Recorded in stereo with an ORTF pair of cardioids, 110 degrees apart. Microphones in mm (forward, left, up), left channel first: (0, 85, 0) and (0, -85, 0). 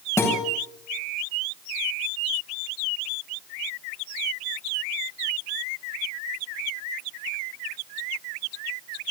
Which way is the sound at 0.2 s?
15° left.